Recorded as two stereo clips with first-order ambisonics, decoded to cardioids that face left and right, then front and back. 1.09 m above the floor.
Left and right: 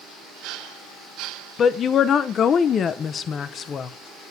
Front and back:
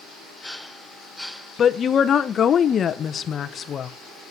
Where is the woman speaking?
45° left, 0.7 m.